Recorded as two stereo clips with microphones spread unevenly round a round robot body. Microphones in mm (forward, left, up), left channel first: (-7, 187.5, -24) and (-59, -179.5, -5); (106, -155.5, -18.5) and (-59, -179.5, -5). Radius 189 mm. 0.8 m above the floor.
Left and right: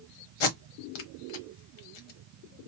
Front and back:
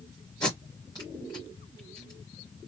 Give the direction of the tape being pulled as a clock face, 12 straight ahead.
9 o'clock.